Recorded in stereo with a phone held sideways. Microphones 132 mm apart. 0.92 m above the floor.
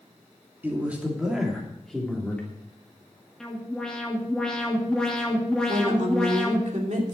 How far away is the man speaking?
About 2.5 m.